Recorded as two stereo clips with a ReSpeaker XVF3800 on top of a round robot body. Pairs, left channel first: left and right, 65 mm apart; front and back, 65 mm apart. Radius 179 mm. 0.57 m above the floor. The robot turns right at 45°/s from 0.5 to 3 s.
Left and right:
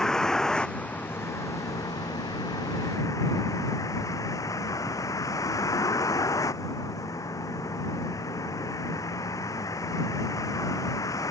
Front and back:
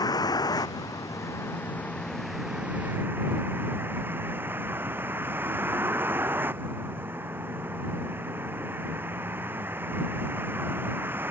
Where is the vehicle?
10° left; by 11.3 s 120° left.